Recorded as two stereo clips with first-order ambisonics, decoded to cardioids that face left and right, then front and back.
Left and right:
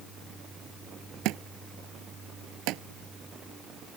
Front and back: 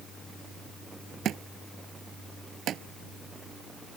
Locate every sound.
1.2 s a thud: 125° right